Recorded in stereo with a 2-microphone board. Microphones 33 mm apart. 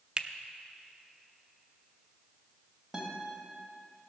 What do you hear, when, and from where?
0.2 s a finger snap: 25° right (ahead or behind), 0.6 m
2.9 s a guitar: 15° right (ahead or behind), 2.5 m